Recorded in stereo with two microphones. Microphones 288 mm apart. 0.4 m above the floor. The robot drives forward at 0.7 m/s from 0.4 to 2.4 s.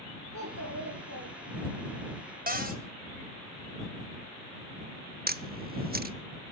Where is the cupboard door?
30° right (ahead or behind), 1.9 m.